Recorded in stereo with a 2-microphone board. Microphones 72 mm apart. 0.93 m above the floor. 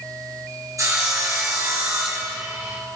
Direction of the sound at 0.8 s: 50° right (ahead or behind).